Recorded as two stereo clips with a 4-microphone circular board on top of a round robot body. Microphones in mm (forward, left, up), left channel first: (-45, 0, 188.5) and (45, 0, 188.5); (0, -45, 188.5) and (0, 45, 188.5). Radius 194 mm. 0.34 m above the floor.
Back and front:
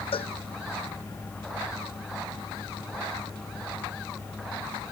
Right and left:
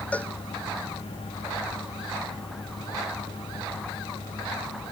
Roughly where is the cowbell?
Behind.